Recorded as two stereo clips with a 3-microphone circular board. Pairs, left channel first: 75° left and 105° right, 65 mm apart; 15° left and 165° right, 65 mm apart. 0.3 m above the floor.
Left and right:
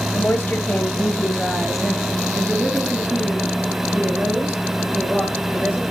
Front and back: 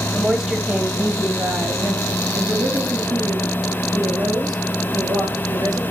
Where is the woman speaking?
105° left, 1.2 m; by 5.8 s 170° right, 4 m.